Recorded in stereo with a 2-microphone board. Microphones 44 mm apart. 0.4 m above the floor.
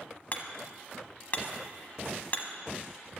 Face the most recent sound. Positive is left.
turn(degrees=40)  # may be behind; listen again after turning